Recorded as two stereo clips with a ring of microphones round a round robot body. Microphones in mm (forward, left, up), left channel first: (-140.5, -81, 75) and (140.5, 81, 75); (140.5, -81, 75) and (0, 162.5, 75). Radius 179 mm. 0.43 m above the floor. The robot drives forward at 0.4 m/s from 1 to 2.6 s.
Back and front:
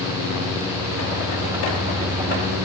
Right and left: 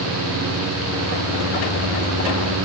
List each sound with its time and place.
Only background noise.